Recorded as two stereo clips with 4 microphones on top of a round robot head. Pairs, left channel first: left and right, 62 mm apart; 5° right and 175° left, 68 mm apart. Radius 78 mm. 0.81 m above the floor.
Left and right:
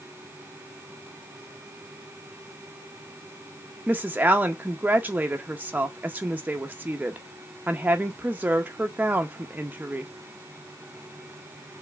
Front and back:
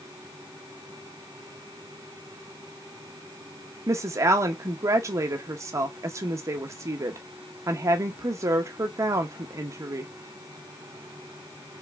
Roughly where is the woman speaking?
Behind right.